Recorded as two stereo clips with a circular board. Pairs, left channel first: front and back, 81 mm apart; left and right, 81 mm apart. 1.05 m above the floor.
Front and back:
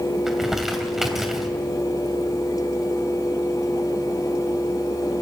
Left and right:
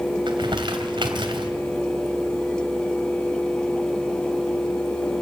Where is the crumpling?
95° right, 2.5 m.